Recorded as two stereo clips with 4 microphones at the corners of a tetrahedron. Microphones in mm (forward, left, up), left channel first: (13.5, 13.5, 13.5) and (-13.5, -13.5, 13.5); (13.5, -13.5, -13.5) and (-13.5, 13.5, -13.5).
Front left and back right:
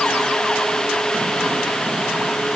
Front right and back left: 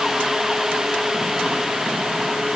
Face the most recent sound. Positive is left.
No sound to turn to.